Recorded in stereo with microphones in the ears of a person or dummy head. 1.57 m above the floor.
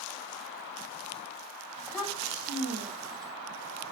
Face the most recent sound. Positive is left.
turn(degrees=0)  # may be behind; listen again after turning